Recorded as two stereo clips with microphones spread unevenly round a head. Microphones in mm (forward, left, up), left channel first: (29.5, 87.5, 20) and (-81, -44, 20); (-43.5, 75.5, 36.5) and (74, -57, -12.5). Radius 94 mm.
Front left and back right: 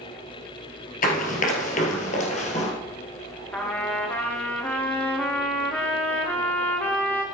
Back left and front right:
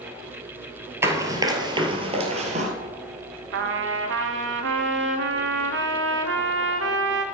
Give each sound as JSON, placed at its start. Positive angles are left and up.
{"t": 1.0, "sound": "running footsteps", "azimuth_deg": 40, "distance_m": 2.0}
{"t": 3.5, "sound": "a trumpet", "azimuth_deg": -35, "distance_m": 1.2}